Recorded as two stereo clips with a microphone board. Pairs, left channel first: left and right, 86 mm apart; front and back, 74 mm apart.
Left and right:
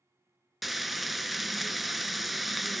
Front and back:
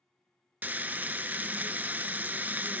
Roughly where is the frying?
Behind.